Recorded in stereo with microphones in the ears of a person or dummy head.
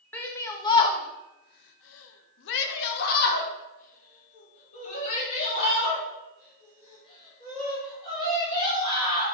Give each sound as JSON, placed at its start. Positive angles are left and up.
{"t": 0.1, "sound": "a shout", "side_deg": 15, "distance_m": 1.0}